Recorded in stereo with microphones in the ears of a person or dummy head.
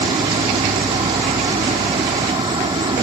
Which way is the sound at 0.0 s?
30° right (ahead or behind).